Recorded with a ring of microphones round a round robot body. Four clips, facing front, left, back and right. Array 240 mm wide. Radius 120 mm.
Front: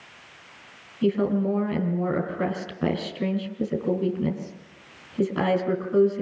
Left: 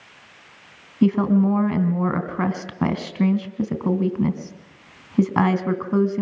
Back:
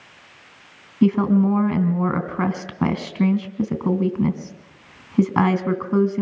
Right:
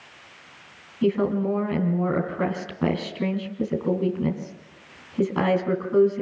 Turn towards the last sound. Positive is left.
turn(degrees=135)